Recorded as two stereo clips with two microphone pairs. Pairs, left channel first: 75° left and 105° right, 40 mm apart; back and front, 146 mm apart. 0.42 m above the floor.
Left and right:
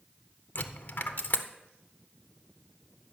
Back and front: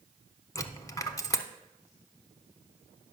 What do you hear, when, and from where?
0.6 s a dropped coin: 110° left, 0.7 m